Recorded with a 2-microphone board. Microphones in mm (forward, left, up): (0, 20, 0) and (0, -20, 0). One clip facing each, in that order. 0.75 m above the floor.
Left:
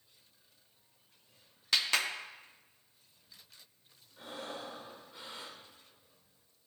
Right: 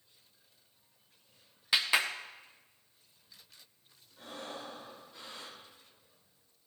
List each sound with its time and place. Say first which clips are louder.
1.7 s a clap: right 2 dB; 15° right (ahead or behind), 0.7 m
4.2 s breathing: left 1 dB; 25° left (ahead or behind), 2 m